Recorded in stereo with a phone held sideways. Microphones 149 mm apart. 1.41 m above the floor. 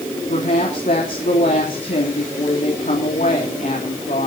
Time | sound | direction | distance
0.3 | a woman speaking | 60° left (ahead or behind) | 3.5 m